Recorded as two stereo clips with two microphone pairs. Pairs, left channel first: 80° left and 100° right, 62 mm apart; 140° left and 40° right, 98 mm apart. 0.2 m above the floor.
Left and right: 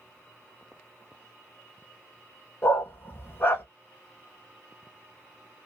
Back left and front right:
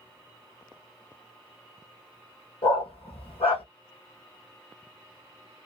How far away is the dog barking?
About 1.9 m.